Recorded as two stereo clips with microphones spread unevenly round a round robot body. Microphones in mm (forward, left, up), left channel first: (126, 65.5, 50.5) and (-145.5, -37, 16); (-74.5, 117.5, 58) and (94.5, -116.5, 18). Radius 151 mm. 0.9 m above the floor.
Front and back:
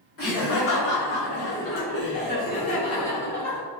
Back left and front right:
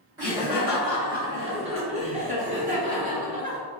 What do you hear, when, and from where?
0.2 s laughter: 15° left, 1.8 m; by 3.6 s 80° right, 1.1 m